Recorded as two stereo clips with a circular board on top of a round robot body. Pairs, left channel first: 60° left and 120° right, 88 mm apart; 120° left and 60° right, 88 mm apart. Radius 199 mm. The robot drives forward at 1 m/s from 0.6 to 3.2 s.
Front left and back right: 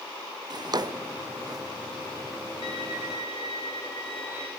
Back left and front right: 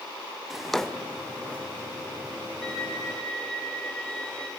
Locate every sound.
0.5 s a drawer: 150° right, 1.1 m; by 1.6 s 165° right, 2.0 m
2.6 s a violin: 35° left, 9.5 m